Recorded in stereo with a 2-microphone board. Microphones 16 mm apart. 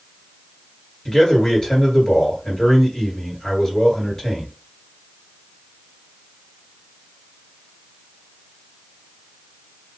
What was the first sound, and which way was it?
A man speaking, 35° left (ahead or behind).